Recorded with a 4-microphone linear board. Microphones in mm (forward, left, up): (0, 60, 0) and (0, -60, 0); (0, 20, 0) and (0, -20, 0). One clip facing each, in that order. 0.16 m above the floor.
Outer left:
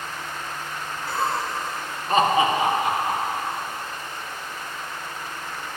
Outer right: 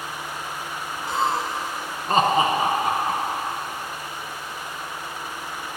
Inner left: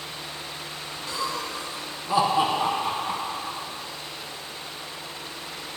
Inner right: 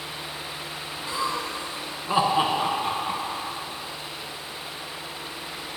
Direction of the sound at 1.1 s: 20° right (ahead or behind).